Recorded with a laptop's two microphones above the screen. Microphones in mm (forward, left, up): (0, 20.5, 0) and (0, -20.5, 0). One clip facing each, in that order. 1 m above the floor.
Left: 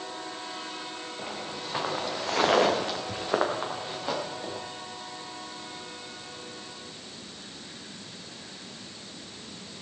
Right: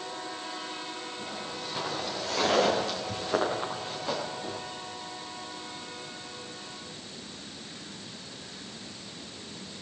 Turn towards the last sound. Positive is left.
turn(degrees=10)  # may be behind; listen again after turning